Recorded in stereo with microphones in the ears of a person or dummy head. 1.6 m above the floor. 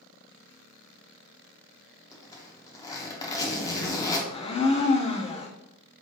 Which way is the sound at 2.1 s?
20° left (ahead or behind).